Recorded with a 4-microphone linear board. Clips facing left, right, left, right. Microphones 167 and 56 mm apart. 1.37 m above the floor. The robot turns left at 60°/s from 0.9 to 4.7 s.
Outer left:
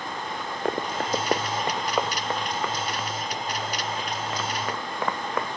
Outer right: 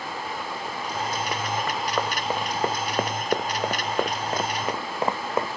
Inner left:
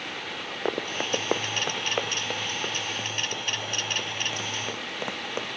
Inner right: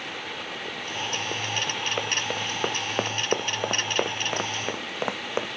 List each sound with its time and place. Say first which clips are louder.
0.7 s running footsteps: outer left 6 dB, inner left 6 dB; 70° left (ahead or behind); by 5.6 s 20° right (ahead or behind)